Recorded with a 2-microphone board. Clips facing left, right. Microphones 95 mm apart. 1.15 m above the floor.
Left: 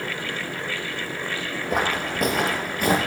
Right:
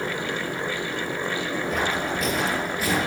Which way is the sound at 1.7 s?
60° left (ahead or behind).